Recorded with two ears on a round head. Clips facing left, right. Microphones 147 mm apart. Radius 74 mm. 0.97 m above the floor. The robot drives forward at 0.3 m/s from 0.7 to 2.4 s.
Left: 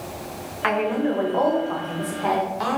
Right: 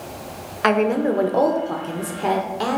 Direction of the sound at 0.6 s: 50° right (ahead or behind).